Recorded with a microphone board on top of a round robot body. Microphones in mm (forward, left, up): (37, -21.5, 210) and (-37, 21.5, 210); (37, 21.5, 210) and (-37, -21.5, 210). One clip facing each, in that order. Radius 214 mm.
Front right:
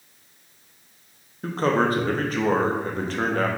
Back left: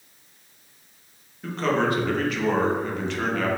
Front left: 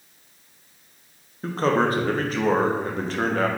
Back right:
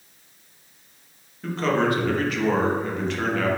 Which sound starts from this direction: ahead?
A man speaking, at 1.4 s.